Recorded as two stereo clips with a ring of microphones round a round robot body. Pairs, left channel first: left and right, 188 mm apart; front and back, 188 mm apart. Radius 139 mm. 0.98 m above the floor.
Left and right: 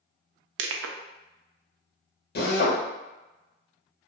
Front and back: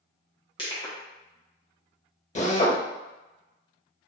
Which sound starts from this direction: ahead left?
A drill, at 2.4 s.